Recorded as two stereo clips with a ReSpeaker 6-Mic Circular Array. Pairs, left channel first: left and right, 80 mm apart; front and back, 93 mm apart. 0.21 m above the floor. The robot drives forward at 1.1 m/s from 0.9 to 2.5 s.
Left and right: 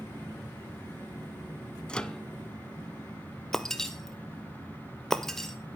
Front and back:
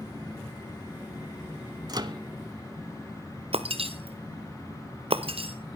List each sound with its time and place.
1.9 s a microwave: 165° left, 1.1 m; by 2.2 s 170° left, 1.4 m
3.5 s breaking glass: 175° left, 1.6 m